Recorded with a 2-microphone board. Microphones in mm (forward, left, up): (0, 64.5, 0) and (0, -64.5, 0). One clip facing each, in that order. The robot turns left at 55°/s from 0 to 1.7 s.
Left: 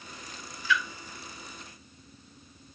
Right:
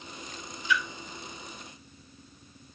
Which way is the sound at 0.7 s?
20° right (ahead or behind).